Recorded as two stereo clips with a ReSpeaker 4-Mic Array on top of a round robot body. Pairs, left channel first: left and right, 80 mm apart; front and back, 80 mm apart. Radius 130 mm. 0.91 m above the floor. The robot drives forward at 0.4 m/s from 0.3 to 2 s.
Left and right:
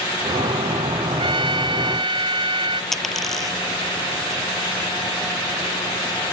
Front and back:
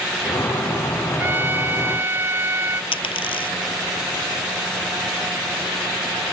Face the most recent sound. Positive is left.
turn(degrees=5)